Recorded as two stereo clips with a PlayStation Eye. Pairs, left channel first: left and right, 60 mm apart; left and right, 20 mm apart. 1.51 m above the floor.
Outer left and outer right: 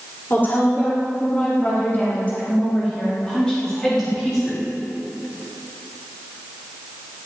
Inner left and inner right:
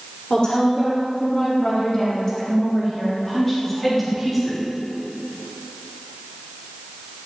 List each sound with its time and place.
0.3 s a woman speaking: 35° left (ahead or behind), 4 m; by 4.7 s 5° left (ahead or behind), 3.5 m